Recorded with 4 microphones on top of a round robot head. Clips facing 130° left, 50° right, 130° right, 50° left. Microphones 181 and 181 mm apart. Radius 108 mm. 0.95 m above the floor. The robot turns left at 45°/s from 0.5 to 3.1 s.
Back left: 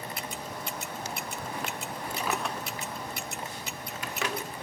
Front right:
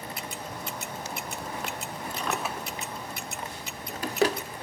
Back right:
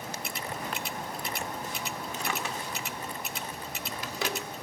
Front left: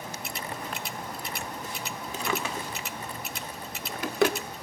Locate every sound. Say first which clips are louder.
2.1 s a drawer: even, front left 6 dB; 50° left, 1.4 m; by 4.4 s 10° left, 1.4 m